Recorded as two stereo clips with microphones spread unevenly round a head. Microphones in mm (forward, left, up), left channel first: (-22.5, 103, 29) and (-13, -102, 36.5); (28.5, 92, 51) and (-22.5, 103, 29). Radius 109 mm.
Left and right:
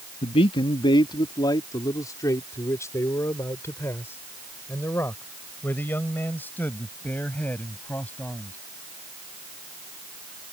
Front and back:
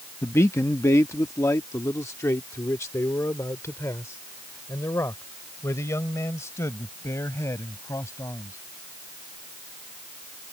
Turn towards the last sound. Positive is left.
turn(degrees=10)